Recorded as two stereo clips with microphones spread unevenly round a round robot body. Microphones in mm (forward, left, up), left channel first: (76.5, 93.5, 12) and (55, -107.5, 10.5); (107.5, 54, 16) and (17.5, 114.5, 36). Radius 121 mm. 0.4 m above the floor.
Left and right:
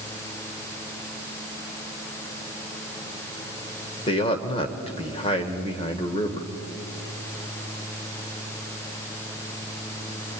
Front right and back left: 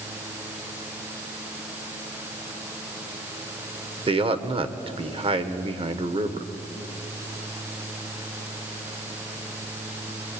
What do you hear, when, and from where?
4.1 s a man speaking: 140° left, 1.6 m